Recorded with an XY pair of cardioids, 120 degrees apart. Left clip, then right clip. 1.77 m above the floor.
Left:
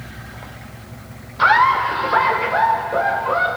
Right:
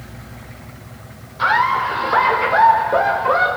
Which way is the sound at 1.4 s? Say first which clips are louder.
Left 2 dB; 30° left.